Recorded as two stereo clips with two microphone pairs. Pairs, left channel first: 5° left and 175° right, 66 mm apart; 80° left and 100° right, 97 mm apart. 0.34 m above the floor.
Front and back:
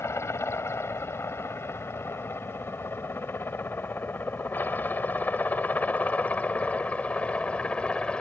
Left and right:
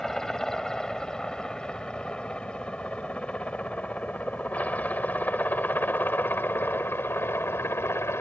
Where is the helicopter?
5° right; by 8.2 s 60° left.